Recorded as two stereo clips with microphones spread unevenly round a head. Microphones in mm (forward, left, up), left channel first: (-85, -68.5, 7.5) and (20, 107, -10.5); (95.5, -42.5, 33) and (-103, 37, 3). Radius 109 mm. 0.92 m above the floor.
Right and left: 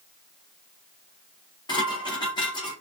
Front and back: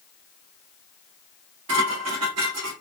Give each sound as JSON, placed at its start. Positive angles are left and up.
{"t": 1.7, "sound": "dishes clattering", "azimuth_deg": 170, "distance_m": 1.4}